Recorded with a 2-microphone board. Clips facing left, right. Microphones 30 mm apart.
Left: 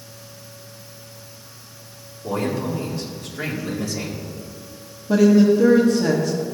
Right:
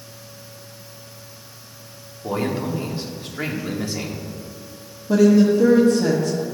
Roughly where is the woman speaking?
Centre.